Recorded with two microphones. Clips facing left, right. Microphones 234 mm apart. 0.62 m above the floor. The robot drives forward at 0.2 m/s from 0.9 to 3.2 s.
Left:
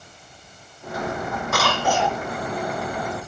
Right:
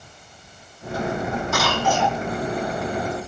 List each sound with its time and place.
1.5 s a cough: 65° left (ahead or behind), 5 m; by 2.2 s 60° left (ahead or behind), 5 m